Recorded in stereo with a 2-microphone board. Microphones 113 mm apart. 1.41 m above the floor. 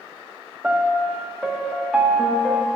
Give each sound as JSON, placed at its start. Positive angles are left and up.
{"t": 0.6, "sound": "a piano", "side_deg": -10, "distance_m": 0.6}